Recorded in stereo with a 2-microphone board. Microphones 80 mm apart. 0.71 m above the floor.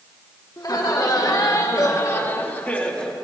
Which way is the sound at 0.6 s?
50° left (ahead or behind).